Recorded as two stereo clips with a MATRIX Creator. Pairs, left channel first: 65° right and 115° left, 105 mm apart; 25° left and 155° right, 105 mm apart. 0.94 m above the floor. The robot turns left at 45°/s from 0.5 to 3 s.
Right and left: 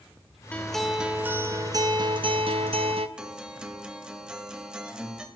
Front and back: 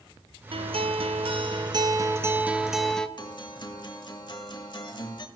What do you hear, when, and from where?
0.5 s a guitar: 145° right, 0.5 m; by 3.1 s 105° left, 0.5 m
3.2 s a guitar: 35° left, 0.9 m